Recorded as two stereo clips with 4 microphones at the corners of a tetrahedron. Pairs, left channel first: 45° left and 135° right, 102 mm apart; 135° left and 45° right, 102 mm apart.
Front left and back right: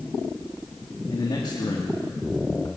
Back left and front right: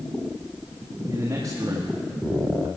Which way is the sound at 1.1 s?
5° left.